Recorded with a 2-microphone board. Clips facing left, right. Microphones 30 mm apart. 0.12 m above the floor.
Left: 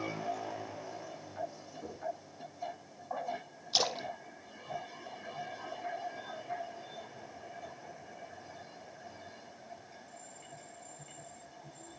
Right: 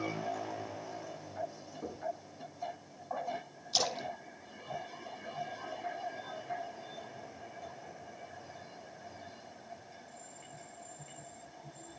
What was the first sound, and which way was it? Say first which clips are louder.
Knocking: right 3 dB; 15° right (ahead or behind).